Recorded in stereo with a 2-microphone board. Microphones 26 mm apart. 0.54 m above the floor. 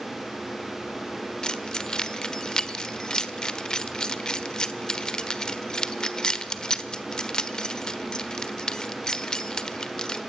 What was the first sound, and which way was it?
Keys jangling, 25° left (ahead or behind).